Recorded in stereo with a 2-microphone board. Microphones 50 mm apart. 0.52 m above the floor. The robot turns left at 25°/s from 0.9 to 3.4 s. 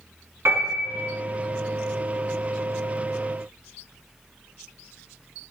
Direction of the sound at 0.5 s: 55° right (ahead or behind).